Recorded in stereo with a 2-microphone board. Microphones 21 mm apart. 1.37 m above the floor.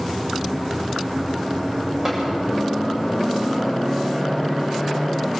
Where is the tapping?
20° right (ahead or behind), 8 m.